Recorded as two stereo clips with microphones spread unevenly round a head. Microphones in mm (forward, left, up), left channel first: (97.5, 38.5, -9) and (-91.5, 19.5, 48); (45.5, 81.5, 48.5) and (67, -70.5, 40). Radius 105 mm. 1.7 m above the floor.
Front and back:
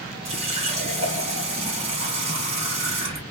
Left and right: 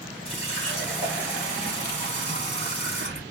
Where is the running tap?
155° left, 1.4 m.